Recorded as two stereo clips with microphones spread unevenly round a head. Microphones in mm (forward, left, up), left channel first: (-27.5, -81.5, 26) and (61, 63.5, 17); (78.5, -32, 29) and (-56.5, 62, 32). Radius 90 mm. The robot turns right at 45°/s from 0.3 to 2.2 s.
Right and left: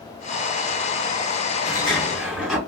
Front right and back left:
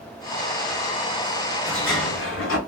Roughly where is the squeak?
No squeak in this recording.